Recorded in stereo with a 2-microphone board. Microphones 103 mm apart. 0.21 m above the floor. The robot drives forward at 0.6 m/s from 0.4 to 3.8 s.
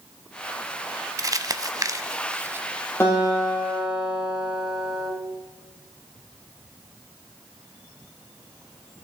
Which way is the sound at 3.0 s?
25° left (ahead or behind).